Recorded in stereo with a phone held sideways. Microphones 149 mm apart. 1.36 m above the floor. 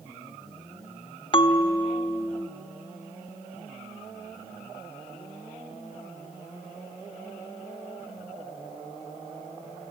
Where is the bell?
35° left (ahead or behind), 0.9 m.